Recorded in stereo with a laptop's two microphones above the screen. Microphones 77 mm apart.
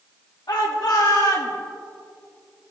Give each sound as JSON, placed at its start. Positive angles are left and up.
{"t": 0.5, "sound": "a shout", "side_deg": 80, "distance_m": 1.6}